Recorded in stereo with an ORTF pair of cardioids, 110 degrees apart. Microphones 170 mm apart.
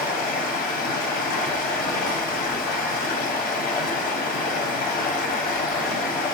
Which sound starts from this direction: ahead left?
Running water, at 0.0 s.